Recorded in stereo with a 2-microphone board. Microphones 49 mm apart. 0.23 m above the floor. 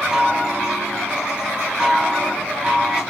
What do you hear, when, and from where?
0.1 s a chime: 20° right (ahead or behind), 1.0 m